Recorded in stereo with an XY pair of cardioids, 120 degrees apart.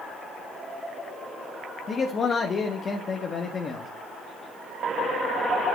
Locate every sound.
1.9 s a man speaking: 35° left, 1.6 m